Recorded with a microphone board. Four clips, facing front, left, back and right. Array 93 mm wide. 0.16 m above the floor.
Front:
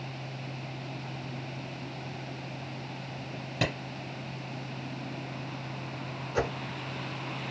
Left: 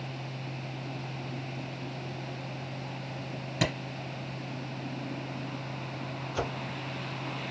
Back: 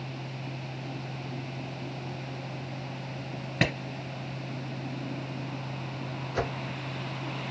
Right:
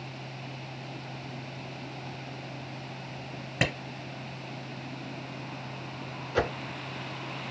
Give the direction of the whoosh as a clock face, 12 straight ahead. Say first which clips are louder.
Right 6 dB, front 1 dB; 3 o'clock.